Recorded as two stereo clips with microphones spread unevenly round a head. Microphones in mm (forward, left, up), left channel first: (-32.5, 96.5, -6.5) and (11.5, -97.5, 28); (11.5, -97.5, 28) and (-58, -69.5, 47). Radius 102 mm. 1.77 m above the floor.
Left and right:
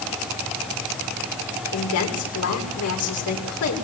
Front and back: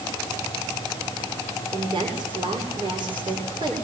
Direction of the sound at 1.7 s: 105° left.